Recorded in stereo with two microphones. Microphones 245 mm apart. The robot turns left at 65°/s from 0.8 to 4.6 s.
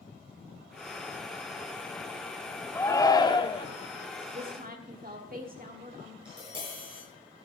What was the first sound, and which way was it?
A shout, 10° left (ahead or behind).